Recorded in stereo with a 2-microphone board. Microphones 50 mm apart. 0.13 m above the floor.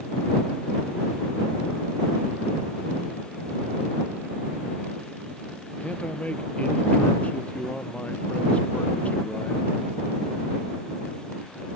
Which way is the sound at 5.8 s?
25° left (ahead or behind).